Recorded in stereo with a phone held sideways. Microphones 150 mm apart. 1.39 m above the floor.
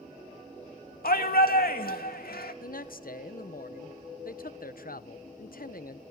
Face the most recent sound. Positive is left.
turn(degrees=70)  # may be behind; listen again after turning